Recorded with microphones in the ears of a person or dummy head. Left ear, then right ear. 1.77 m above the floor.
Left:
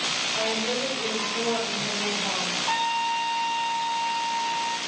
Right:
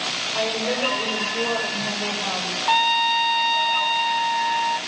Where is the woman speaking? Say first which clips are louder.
Right 3 dB; 75° right (ahead or behind), 8.5 m.